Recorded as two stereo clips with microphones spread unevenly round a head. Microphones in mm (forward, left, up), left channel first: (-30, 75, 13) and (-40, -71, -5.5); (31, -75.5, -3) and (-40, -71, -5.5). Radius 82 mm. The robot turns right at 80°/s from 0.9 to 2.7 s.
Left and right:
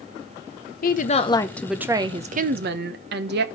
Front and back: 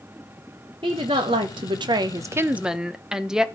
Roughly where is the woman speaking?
Behind left.